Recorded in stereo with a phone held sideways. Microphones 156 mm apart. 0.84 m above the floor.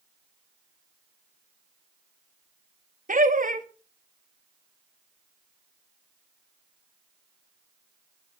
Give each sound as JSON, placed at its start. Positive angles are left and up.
{"t": 3.1, "sound": "laughter", "side_deg": -60, "distance_m": 1.5}